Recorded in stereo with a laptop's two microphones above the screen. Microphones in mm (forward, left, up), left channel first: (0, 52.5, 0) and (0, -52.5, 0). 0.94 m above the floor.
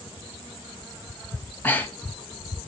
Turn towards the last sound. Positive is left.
turn(degrees=20)  # may be behind; listen again after turning